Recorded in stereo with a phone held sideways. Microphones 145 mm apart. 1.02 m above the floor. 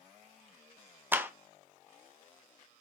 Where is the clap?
15° right (ahead or behind), 0.7 m.